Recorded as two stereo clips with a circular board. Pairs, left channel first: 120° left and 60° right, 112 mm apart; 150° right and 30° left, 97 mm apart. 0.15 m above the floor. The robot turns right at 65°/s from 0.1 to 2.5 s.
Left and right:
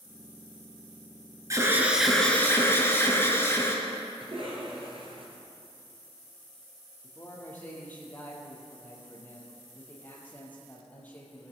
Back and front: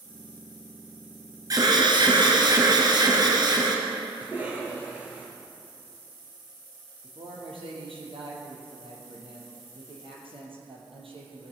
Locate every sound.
1.5 s an alarm: 10° right, 2.5 m; by 3.8 s 55° left, 2.5 m
4.2 s a cough: 40° right, 3 m
7.0 s a man speaking: 45° left, 3.5 m